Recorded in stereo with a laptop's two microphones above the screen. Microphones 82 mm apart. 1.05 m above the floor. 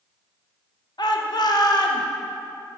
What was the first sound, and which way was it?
A shout, 55° left (ahead or behind).